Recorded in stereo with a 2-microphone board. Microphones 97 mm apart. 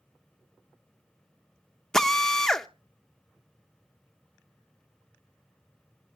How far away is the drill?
About 0.6 m.